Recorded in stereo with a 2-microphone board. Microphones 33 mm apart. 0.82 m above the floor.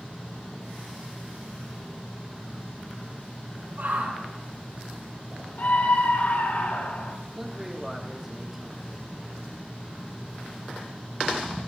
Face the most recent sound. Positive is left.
turn(degrees=-5)  # may be behind; listen again after turning